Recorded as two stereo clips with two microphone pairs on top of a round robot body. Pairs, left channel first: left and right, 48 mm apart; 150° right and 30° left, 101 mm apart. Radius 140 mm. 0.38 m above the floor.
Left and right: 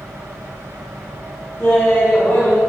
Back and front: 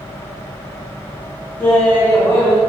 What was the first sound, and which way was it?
Laughter, 140° left.